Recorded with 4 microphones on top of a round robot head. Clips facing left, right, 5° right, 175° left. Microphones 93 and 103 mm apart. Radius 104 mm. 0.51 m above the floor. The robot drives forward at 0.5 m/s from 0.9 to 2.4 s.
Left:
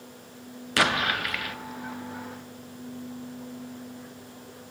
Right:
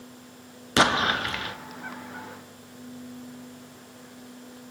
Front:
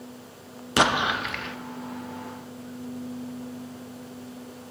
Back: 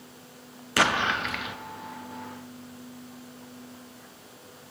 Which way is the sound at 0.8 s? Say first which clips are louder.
Right 3 dB, front 2 dB; 55° right.